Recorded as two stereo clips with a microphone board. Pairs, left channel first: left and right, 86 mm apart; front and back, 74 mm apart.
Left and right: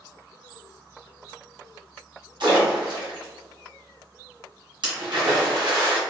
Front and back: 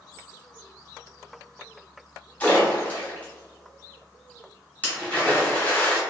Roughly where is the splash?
Right.